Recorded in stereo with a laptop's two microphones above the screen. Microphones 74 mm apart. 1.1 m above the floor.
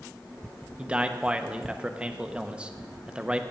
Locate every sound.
0.8 s a man speaking: 15° right (ahead or behind), 0.9 m